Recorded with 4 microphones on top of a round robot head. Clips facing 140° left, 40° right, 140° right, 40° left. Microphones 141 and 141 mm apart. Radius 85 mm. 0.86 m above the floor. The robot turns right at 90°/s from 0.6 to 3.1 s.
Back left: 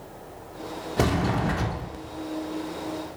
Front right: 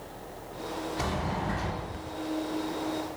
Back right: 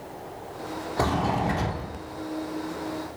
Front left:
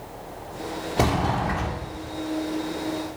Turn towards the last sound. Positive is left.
turn(degrees=-60)